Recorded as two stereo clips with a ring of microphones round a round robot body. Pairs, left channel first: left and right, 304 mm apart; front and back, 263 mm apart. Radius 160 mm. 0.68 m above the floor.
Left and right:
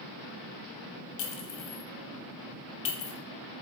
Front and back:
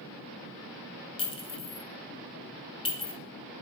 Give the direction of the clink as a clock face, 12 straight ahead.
10 o'clock.